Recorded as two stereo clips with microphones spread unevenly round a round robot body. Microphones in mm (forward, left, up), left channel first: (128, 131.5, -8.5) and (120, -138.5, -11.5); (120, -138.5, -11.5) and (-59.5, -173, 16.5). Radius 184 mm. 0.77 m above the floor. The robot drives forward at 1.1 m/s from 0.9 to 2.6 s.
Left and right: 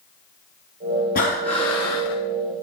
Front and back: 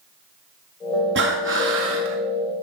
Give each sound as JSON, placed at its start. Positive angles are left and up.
{"t": 1.1, "sound": "breathing", "azimuth_deg": 155, "distance_m": 0.7}